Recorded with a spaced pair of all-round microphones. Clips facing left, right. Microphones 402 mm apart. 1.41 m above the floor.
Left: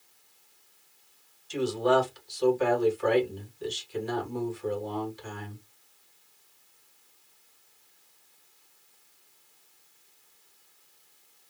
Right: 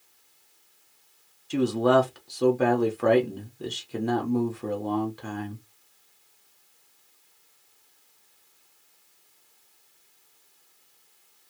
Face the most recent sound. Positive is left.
turn(degrees=-60)  # may be behind; listen again after turning